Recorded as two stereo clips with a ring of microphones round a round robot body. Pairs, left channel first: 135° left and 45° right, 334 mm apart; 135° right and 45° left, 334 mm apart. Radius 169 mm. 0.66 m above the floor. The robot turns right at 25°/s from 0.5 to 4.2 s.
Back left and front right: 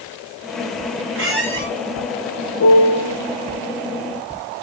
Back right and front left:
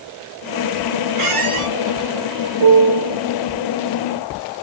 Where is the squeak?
10° left, 1.8 m; by 1.7 s 20° left, 1.8 m.